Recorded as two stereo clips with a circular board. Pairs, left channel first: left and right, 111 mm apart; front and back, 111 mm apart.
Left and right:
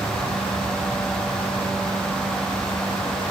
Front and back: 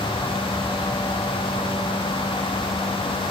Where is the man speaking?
I don't hear a man speaking.